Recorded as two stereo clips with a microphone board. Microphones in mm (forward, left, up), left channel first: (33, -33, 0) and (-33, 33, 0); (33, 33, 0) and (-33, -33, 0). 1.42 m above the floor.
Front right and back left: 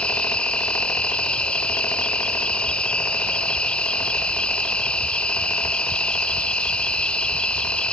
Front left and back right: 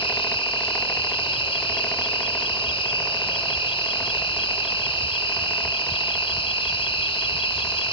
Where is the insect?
35° left.